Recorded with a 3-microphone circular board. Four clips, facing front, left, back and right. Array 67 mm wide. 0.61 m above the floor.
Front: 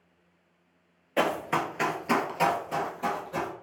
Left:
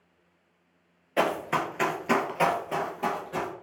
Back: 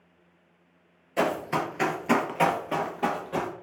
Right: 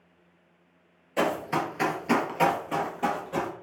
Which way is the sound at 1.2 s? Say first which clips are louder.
Even, even; 40° left.